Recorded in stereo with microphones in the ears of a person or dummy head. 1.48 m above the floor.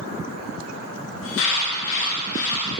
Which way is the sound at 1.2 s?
80° left.